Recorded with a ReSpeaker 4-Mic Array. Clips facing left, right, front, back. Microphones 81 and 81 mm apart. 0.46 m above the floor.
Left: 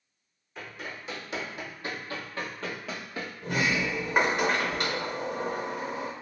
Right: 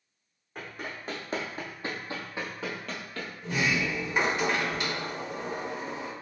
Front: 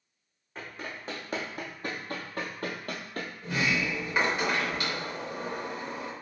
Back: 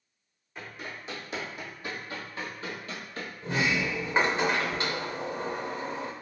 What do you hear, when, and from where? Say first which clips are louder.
0.6 s running footsteps: right 1 dB, front 1 dB; 50° right, 1.5 m; by 3.3 s 25° left, 0.7 m
3.4 s a sliding door: left 1 dB, back 1 dB; 120° left, 0.7 m